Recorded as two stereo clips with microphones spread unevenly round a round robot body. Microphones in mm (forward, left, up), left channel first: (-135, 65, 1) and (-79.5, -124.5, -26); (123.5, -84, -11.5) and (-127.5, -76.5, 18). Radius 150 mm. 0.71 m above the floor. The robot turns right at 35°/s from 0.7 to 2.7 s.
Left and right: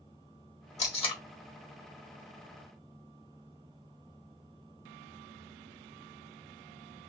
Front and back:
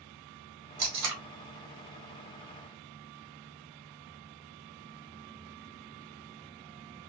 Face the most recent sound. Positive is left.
turn(degrees=-130)